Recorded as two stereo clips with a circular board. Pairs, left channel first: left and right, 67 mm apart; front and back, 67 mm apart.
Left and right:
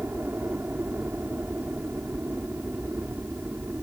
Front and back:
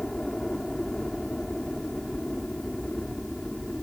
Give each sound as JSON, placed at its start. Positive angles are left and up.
{"t": 0.0, "sound": "a helicopter", "azimuth_deg": -80}